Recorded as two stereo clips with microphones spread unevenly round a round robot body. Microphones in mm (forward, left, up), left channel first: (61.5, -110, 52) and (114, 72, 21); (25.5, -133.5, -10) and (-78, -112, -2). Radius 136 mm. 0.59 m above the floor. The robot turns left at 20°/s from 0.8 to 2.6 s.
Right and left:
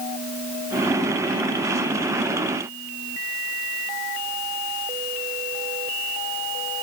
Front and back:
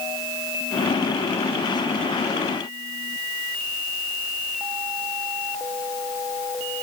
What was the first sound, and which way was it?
Only background noise.